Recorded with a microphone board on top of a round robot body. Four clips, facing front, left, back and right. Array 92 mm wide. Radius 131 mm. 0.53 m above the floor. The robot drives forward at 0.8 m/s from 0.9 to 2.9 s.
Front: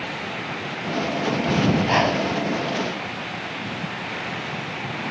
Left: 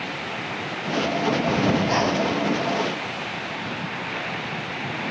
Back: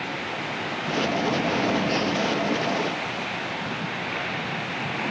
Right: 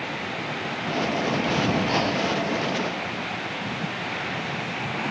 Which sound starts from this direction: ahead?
Breathing, at 1.5 s.